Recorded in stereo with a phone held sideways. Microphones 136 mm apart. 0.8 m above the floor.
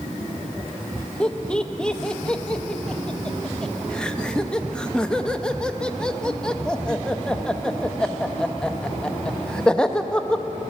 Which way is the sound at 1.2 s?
5° left (ahead or behind).